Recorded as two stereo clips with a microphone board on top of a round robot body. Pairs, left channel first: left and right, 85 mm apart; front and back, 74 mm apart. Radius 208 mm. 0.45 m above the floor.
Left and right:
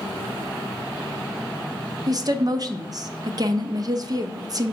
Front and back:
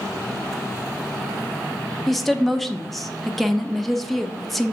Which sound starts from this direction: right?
A woman speaking, at 2.1 s.